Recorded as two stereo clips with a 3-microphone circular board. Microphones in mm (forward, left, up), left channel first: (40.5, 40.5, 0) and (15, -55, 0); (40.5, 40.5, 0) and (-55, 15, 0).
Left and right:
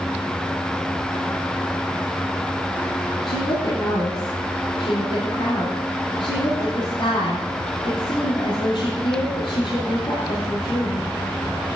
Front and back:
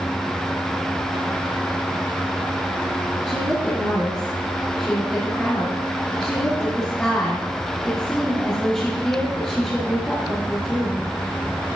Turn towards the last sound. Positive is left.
turn(degrees=95)